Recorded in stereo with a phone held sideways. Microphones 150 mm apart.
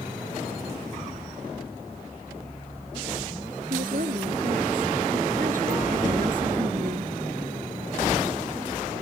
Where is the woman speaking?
65° right (ahead or behind).